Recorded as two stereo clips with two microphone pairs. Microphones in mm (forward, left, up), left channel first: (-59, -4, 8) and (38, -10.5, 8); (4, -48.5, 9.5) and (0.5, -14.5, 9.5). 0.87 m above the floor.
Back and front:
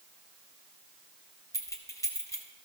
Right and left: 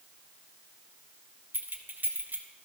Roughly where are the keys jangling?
Behind left.